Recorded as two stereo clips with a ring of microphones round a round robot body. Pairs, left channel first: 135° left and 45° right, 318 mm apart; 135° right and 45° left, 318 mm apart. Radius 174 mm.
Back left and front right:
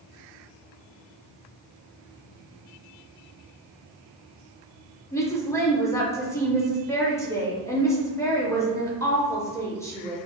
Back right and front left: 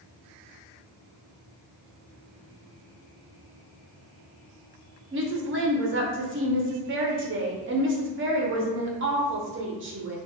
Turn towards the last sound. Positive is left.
turn(degrees=60)